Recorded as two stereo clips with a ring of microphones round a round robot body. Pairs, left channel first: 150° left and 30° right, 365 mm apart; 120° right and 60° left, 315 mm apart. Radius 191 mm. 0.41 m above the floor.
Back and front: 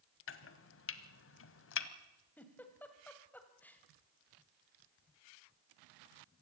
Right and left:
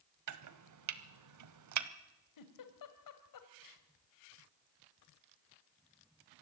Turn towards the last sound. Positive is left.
turn(degrees=-125)